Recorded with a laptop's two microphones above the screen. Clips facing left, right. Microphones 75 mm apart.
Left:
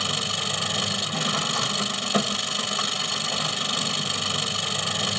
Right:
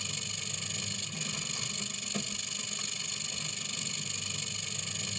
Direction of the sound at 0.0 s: 85° left.